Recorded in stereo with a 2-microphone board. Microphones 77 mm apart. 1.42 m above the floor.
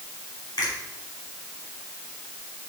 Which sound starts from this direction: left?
A finger snap, at 0.6 s.